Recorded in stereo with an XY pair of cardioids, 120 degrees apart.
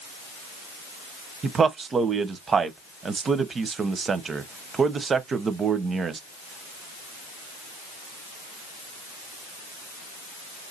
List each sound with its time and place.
1.4 s a man speaking: 35° right, 0.8 m